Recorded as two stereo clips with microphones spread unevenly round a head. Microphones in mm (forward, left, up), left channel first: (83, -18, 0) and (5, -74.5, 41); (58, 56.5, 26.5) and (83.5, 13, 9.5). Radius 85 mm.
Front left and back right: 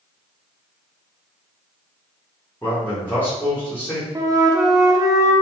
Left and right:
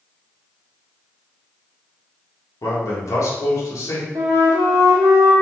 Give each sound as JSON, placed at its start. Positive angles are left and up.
{"t": 2.6, "sound": "a man speaking", "azimuth_deg": 120, "distance_m": 1.6}
{"t": 4.2, "sound": "a flute", "azimuth_deg": -95, "distance_m": 0.9}